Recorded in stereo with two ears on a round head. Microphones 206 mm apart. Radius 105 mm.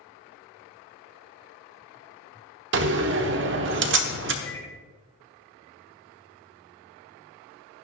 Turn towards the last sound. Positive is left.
turn(degrees=15)  # may be behind; listen again after turning